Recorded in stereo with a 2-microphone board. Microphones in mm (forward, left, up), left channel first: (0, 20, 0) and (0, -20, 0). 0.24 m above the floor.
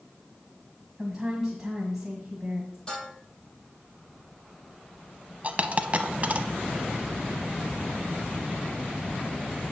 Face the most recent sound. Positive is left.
turn(degrees=-35)  # may be behind; listen again after turning